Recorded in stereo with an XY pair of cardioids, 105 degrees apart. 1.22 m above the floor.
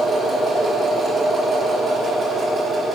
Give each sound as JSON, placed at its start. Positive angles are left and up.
{"t": 0.0, "sound": "a machine running", "azimuth_deg": -45, "distance_m": 3.5}